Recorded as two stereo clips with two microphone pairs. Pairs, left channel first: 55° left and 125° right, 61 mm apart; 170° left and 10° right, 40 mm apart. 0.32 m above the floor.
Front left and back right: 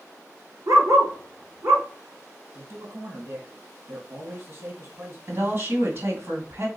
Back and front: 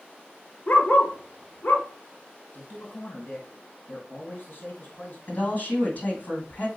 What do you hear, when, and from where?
0.7 s a dog barking: 145° right, 1.0 m
2.5 s a man speaking: 155° right, 2 m
5.3 s a woman speaking: 145° right, 2.5 m